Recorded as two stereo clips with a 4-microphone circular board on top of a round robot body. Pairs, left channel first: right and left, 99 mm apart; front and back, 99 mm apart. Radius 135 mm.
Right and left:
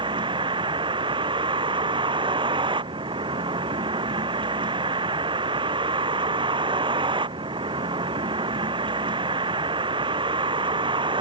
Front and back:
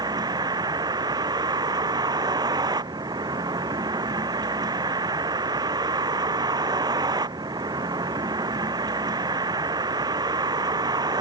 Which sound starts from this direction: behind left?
A vehicle, at 0.0 s.